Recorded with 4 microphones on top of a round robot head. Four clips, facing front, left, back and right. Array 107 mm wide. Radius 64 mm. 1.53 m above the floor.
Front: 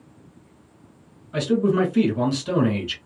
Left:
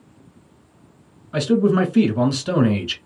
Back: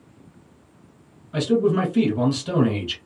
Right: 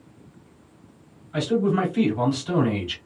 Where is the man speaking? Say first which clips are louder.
Left 5 dB, even; 90° left, 2 m.